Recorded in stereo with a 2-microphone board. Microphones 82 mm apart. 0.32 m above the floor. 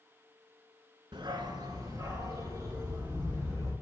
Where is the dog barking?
75° right (ahead or behind), 0.8 m; by 3.7 s 30° right (ahead or behind), 3.5 m.